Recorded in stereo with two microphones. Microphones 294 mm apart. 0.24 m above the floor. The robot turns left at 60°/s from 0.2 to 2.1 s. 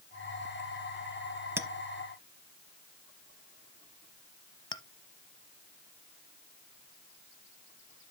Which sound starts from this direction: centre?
A clink, at 1.6 s.